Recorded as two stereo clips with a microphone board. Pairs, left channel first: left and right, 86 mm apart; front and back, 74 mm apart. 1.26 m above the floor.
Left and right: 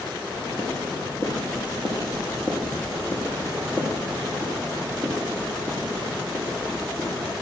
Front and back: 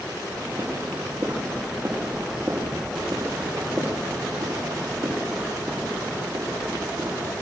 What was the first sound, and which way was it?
Footsteps, 140° left.